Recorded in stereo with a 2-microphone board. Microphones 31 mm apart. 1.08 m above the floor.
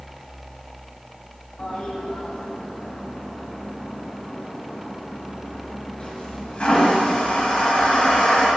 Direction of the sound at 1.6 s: 35° left (ahead or behind).